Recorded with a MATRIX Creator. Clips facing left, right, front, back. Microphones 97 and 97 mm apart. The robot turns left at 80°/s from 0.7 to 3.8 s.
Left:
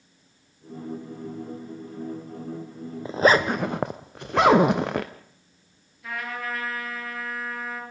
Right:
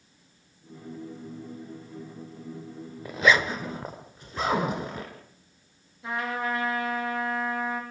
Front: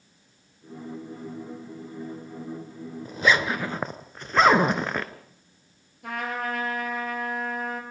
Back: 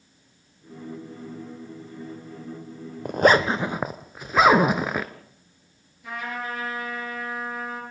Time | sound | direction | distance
3.0 | a zipper | 155° left | 1.2 m
6.0 | a trumpet | 25° right | 6 m